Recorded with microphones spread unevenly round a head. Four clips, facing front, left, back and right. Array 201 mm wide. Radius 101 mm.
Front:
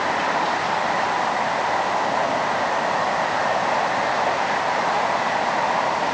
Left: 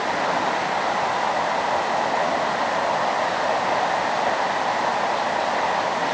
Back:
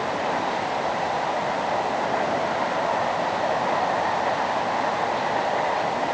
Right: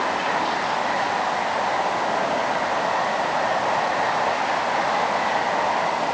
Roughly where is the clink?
I don't hear a clink.